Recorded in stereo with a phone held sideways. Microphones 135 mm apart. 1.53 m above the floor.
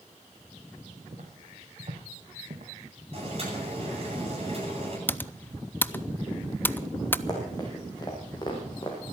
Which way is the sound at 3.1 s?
45° right (ahead or behind).